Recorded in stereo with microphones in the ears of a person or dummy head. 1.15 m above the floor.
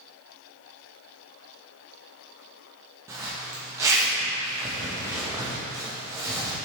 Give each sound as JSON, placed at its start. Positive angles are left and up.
{"t": 3.1, "sound": "a zipper", "side_deg": -15, "distance_m": 1.2}